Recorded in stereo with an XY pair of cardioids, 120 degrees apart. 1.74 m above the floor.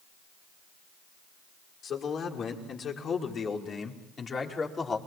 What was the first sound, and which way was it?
A man speaking, 50° left.